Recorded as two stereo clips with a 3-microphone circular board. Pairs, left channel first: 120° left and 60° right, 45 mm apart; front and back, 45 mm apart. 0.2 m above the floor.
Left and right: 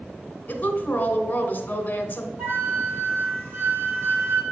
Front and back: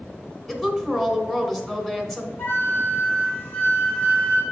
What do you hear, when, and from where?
0.5 s a woman speaking: 80° left, 1.6 m
2.4 s a flute: 30° right, 3 m